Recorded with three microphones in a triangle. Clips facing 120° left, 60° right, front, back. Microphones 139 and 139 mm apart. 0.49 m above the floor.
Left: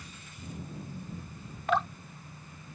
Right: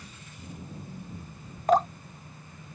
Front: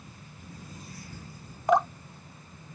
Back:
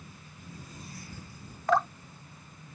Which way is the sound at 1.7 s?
60° right.